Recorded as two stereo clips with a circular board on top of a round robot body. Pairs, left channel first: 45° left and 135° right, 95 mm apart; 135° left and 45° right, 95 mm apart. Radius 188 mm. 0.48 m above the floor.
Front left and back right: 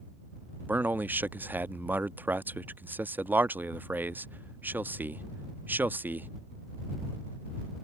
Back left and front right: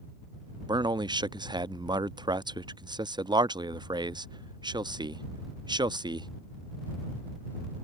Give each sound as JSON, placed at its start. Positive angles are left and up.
{"t": 0.7, "sound": "a man speaking", "azimuth_deg": -70}